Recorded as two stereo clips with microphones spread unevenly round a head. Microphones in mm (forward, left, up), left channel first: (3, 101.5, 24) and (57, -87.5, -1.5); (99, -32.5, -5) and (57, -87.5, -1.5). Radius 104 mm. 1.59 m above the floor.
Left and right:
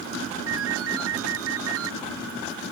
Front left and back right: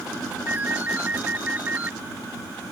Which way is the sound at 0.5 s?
60° right.